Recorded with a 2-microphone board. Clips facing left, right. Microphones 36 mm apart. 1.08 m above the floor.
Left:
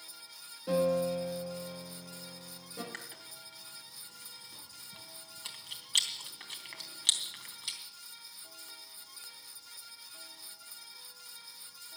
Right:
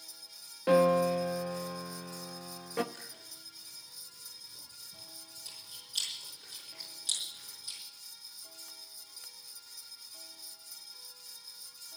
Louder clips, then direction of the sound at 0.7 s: Right 4 dB; 50° right (ahead or behind).